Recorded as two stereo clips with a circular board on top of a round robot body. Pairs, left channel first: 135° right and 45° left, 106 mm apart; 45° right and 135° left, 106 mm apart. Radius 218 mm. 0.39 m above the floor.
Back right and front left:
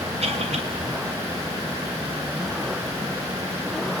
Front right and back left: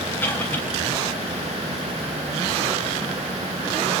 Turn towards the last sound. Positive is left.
turn(degrees=30)